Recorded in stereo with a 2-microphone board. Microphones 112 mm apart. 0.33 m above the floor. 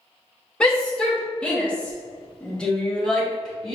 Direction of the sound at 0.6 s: 10° left (ahead or behind).